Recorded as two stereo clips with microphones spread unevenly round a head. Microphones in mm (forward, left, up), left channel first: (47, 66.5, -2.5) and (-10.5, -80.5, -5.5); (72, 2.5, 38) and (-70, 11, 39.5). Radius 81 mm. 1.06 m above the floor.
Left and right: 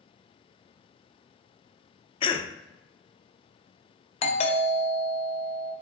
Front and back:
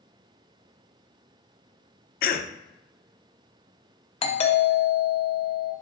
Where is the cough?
10° left, 0.5 m.